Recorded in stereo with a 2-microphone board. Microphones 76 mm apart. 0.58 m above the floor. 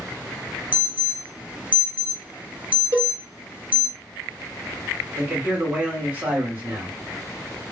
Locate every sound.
0.7 s an alarm: 20° right (ahead or behind), 0.7 m
2.9 s a cowbell: 45° right (ahead or behind), 1.2 m
5.2 s a man speaking: 25° right (ahead or behind), 1.9 m